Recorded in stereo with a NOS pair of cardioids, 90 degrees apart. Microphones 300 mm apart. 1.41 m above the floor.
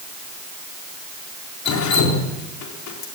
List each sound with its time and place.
1.6 s dripping: 65° left, 4 m